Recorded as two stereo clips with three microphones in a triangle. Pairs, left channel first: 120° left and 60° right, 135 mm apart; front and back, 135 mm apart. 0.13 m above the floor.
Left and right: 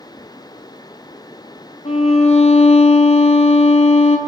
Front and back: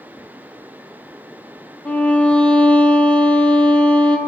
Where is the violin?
80° left, 1.0 m.